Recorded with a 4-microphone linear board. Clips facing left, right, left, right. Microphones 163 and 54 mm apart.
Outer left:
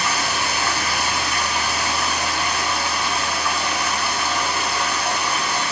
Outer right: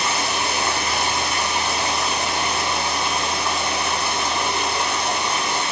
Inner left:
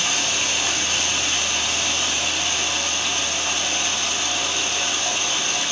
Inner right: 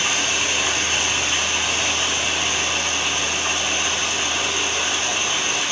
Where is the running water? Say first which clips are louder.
Even, inner right 2 dB; 25° right (ahead or behind), 3.5 m.